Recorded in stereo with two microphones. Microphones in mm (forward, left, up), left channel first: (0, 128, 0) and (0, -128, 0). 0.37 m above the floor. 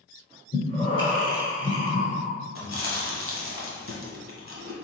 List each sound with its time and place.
0.5 s breathing: 20° left (ahead or behind), 1.1 m
2.5 s chewing: 50° left (ahead or behind), 1.0 m